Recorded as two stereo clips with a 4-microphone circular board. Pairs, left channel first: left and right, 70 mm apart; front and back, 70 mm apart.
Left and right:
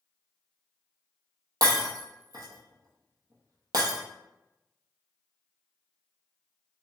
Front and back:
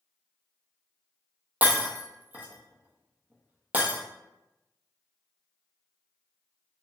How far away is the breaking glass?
About 0.7 m.